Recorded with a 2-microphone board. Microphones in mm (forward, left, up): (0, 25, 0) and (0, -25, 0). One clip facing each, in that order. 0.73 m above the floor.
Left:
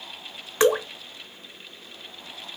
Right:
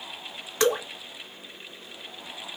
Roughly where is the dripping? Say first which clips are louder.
Left 4 dB; left.